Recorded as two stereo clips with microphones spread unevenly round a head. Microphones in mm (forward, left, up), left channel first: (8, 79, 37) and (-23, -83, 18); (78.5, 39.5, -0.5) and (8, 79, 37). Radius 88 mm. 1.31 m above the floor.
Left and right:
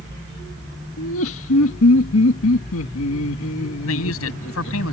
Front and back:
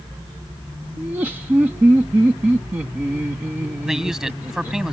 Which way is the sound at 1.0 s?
80° left.